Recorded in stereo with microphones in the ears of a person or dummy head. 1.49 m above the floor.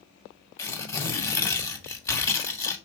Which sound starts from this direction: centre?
Tearing paper, at 0.6 s.